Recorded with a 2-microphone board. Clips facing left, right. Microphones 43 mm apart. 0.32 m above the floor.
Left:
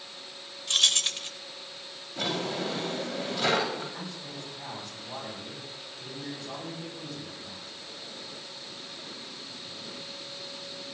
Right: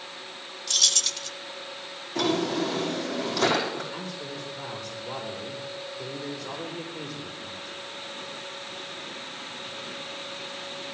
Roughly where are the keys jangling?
Left.